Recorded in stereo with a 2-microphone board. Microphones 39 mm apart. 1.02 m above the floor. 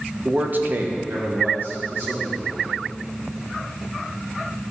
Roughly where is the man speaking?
Right.